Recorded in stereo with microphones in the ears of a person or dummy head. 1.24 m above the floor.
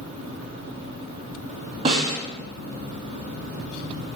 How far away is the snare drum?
About 1.9 m.